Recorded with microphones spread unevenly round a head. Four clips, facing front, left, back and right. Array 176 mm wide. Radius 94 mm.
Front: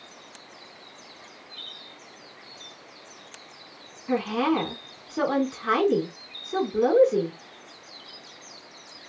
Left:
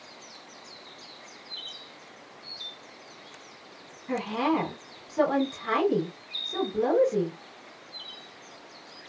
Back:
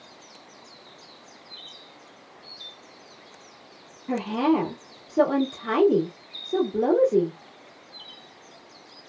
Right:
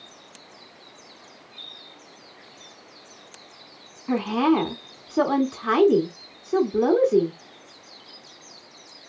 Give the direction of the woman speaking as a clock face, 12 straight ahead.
4 o'clock.